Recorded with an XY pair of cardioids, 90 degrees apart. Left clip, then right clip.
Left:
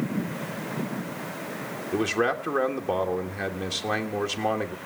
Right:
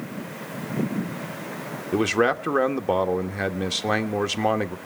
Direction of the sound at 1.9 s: 35° right.